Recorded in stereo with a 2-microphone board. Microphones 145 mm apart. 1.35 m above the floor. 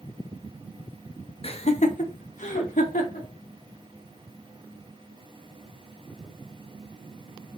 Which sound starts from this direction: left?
Laughter, at 1.4 s.